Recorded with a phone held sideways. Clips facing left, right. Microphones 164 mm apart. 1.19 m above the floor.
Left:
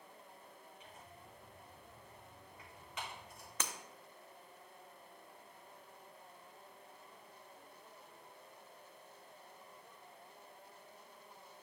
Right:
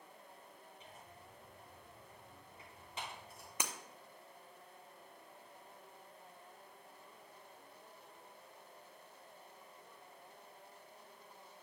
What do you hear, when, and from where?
0.8 s tearing paper: 35° right (ahead or behind), 4 m
3.6 s breaking glass: 15° right (ahead or behind), 0.6 m